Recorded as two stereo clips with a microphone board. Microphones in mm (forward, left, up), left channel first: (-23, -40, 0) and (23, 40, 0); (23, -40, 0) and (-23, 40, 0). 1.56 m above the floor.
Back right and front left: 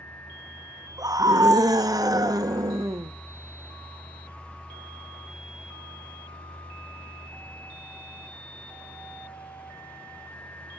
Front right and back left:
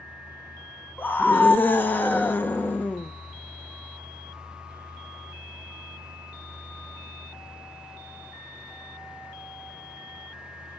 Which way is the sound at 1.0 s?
10° left.